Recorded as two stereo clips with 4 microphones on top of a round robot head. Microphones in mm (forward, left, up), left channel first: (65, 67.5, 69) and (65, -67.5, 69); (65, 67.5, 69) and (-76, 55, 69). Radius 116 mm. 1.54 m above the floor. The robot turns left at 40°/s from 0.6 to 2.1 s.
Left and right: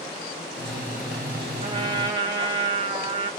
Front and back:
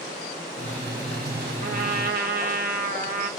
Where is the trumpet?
140° right, 1.0 m; by 3.3 s 160° right, 1.0 m.